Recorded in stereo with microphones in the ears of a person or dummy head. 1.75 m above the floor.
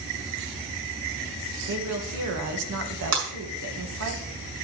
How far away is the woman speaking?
About 2.5 m.